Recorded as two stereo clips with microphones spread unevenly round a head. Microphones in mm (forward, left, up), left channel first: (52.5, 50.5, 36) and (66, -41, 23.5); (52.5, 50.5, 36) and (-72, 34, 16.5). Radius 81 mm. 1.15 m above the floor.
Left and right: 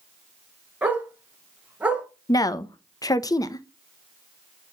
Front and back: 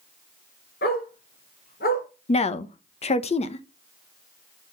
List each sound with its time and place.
0.8 s a dog barking: 5° right, 5 m
2.3 s a woman speaking: 45° left, 1.1 m